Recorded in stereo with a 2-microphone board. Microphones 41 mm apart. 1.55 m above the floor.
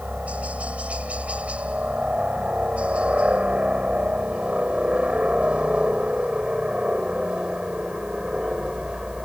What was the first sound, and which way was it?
A helicopter, 35° right (ahead or behind).